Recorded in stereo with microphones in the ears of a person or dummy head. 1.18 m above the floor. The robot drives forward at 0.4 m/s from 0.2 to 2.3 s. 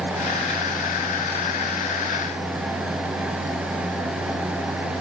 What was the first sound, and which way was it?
Only background noise.